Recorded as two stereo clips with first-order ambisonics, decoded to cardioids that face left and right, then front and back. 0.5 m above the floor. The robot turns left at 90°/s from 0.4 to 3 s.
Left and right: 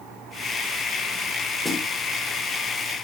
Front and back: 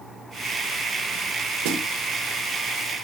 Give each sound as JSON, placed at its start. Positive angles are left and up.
{"t": 1.6, "sound": "a snare drum", "azimuth_deg": 180, "distance_m": 2.0}